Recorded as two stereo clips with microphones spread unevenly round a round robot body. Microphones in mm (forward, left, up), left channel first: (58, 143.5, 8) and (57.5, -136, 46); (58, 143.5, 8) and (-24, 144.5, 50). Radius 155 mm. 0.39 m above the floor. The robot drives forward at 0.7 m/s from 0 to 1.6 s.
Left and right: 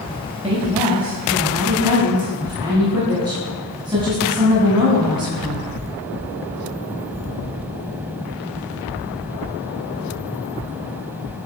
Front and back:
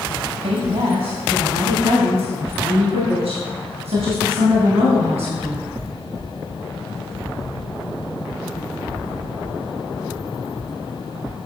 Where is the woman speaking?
165° right, 2 m; by 5.7 s 170° right, 3 m.